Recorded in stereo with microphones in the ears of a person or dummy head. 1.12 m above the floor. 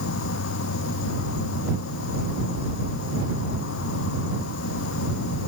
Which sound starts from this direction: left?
An insect, at 0.0 s.